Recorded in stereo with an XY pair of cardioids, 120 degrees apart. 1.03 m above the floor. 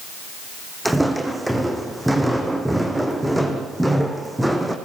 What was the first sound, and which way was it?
Footsteps, 10° right.